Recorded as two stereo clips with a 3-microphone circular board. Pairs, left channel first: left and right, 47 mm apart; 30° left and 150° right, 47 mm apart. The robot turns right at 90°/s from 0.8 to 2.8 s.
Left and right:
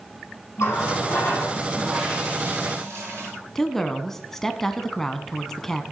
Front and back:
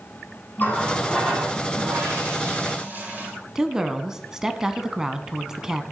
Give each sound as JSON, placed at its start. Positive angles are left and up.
{"t": 0.6, "sound": "a running tap", "azimuth_deg": 80, "distance_m": 4.0}
{"t": 3.5, "sound": "a woman speaking", "azimuth_deg": 150, "distance_m": 1.0}